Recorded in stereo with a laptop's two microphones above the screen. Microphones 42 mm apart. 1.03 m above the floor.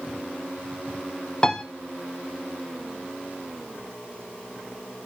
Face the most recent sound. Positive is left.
turn(degrees=25)  # may be behind; listen again after turning